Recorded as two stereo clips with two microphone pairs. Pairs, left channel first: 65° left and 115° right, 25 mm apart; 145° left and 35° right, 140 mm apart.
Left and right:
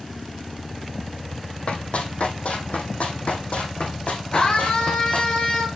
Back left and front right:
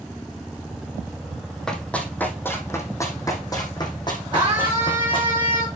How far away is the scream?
About 3 m.